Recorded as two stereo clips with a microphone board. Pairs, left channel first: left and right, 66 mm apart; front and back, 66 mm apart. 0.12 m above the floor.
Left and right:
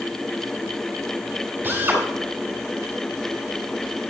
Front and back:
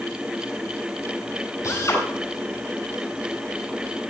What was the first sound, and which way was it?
A drill, 30° right.